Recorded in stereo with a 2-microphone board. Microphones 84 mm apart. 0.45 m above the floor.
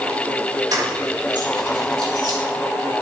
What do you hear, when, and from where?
0.7 s keys jangling: 50° right (ahead or behind), 4 m; by 2.4 s 65° right (ahead or behind), 5.5 m